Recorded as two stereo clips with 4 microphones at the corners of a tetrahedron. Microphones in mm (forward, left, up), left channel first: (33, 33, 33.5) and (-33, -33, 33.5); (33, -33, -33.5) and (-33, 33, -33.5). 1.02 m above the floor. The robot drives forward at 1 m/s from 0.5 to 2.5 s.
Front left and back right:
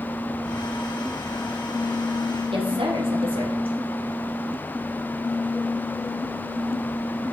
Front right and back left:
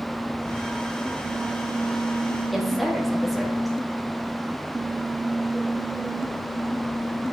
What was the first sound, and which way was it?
A woman speaking, 135° right.